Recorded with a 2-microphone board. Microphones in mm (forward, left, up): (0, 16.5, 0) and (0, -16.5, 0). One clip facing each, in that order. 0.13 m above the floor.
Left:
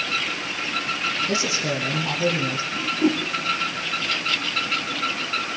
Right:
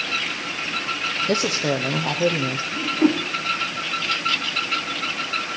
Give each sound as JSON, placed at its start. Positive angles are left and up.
{"t": 1.3, "sound": "a woman speaking", "side_deg": -40, "distance_m": 4.0}
{"t": 2.7, "sound": "a whoosh", "side_deg": -35, "distance_m": 6.5}